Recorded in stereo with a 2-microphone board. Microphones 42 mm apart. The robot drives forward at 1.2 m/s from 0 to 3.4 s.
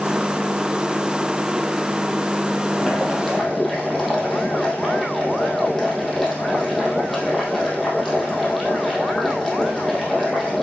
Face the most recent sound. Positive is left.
turn(degrees=0)  # may be behind; listen again after turning